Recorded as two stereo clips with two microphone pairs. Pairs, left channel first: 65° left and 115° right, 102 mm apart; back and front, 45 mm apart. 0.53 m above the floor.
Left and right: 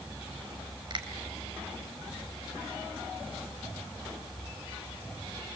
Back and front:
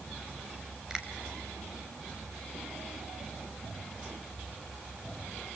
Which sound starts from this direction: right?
A finger snap, at 0.9 s.